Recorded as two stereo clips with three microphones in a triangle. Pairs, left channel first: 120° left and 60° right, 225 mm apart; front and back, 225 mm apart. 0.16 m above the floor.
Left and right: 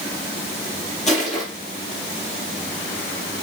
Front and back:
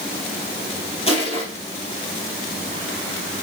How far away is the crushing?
About 3.5 m.